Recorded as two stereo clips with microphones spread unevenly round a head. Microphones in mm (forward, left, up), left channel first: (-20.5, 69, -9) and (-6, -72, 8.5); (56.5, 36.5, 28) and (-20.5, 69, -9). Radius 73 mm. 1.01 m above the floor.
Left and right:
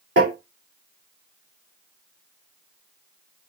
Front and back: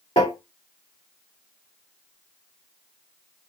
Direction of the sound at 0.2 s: 75° right.